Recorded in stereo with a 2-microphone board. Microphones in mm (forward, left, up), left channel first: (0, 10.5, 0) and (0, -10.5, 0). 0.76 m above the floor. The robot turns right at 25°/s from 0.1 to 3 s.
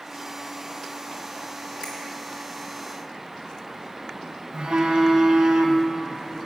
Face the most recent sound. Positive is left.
turn(degrees=-55)  # may be behind; listen again after turning